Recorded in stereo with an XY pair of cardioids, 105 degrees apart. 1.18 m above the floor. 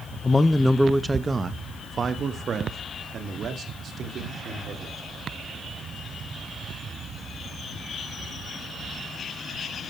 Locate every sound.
0.2 s a man speaking: 25° left, 0.8 m; by 5.0 s 60° right, 3.5 m